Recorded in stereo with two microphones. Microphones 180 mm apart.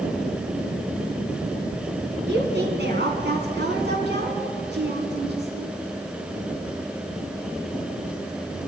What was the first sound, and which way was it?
A woman speaking, 75° right (ahead or behind).